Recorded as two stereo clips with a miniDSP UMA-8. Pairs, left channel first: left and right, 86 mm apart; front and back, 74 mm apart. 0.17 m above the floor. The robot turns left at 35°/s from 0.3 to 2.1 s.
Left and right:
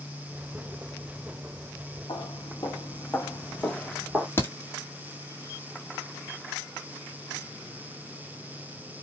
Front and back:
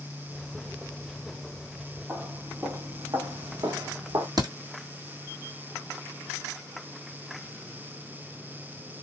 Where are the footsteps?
120° left, 1.2 m; by 4.3 s 175° right, 1.0 m.